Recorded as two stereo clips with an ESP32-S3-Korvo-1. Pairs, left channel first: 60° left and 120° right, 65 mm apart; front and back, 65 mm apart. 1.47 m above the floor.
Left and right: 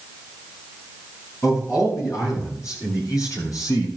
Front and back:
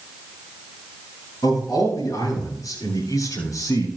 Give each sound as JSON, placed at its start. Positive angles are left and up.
{"t": 1.4, "sound": "a man speaking", "azimuth_deg": 20, "distance_m": 8.0}